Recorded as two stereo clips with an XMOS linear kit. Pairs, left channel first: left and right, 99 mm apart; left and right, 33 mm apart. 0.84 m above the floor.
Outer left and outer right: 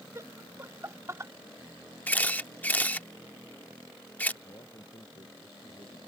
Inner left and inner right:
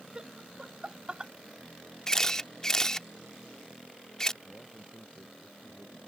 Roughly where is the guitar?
I don't hear a guitar.